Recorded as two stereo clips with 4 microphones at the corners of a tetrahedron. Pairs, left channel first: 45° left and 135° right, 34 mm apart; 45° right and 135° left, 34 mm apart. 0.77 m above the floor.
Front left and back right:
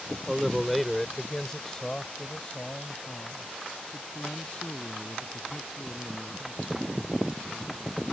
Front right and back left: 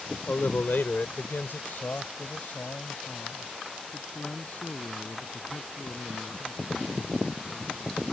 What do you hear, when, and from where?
0.3 s a man speaking: 55° right; by 8.0 s straight ahead